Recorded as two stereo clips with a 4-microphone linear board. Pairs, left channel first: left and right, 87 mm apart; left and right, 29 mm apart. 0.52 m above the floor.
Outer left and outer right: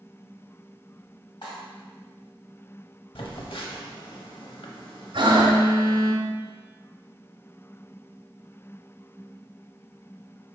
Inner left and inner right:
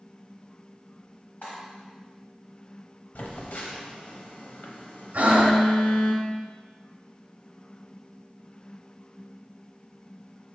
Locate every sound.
1.4 s cutlery clinking: 70° left (ahead or behind), 2.0 m
3.1 s a phone buzzing: 80° left, 0.7 m
5.1 s breathing: 75° right (ahead or behind), 0.8 m